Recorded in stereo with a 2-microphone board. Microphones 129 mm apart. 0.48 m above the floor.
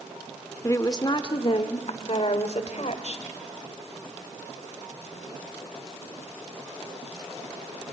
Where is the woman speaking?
25° left (ahead or behind), 1.1 m; by 3.3 s 60° left (ahead or behind), 2.0 m.